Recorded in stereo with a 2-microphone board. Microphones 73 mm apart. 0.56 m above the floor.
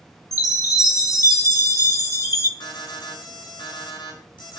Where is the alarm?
80° left, 5 m.